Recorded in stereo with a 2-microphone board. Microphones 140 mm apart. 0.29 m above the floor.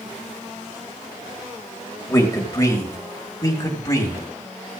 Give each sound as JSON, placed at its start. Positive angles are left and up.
{"t": 2.1, "sound": "a man speaking", "side_deg": 25, "distance_m": 1.6}